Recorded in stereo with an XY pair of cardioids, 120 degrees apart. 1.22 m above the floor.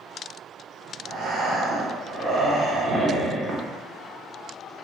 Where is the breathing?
45° right, 0.6 m.